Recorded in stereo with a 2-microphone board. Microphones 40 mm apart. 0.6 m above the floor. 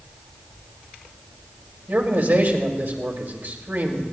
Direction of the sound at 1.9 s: 60° right (ahead or behind).